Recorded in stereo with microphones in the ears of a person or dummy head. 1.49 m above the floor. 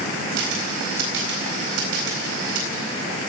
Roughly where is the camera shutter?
Right.